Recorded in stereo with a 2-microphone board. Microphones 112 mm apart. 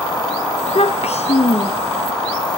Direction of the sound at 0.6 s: 70° left (ahead or behind).